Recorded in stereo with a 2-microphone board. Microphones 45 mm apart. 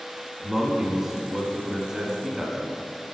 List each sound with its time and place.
0.4 s a man speaking: 5° right (ahead or behind), 1.4 m